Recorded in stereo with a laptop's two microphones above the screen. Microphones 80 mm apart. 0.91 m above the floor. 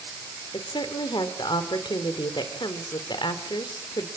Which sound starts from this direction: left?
A woman speaking, at 0.5 s.